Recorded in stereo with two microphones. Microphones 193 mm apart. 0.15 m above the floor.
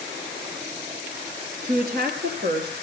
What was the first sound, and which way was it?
A woman speaking, 55° right (ahead or behind).